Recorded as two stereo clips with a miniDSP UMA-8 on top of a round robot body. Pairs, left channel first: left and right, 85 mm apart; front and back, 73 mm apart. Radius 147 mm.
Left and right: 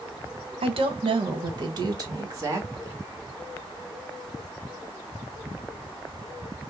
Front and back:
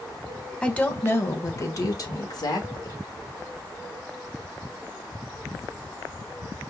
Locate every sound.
0.6 s a woman speaking: 80° right, 0.9 m; by 3.0 s 30° right, 1.7 m